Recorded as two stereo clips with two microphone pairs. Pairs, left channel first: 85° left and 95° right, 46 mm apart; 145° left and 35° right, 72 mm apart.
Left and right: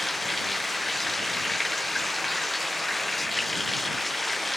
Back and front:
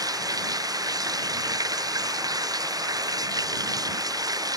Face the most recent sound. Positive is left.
turn(degrees=-5)